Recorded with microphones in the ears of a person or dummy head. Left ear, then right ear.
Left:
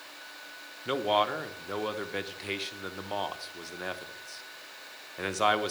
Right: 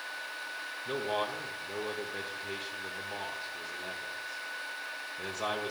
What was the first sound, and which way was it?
A man speaking, 55° left (ahead or behind).